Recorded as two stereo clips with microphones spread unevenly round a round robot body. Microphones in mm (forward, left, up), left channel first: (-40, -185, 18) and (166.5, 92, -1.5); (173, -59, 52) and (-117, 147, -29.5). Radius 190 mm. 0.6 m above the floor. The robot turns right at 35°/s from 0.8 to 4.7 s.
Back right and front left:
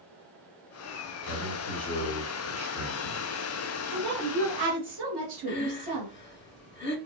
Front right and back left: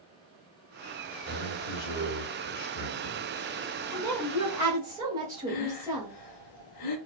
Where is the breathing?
70° right, 0.9 m.